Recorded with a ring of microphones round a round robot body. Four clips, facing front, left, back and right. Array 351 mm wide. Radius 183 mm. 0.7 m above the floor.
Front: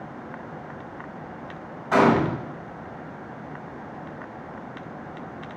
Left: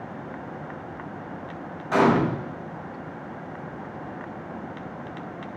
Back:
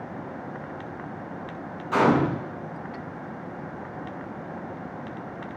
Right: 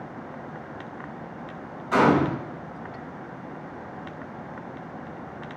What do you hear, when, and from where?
1.9 s a gunshot: 5° left, 1.3 m